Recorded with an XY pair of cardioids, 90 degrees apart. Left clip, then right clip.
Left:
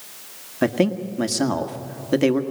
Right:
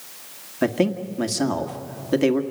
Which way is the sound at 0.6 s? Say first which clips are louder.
Left 1 dB; 10° left.